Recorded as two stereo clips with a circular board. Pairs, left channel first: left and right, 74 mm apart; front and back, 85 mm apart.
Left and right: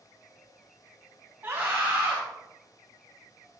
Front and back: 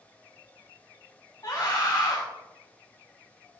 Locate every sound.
1.4 s a scream: 30° right, 2 m